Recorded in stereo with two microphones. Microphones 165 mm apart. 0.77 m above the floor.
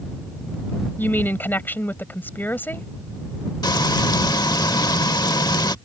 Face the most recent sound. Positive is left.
turn(degrees=25)  # may be behind; listen again after turning